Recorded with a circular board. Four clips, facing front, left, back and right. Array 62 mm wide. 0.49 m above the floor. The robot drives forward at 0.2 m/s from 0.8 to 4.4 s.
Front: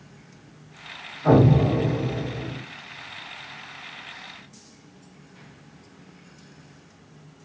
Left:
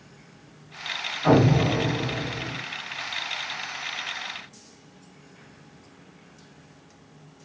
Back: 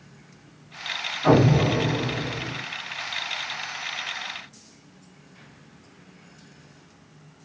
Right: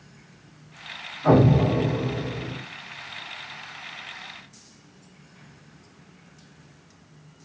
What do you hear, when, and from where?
1.2 s an explosion: 150° left, 1.5 m; by 2.6 s 155° left, 1.7 m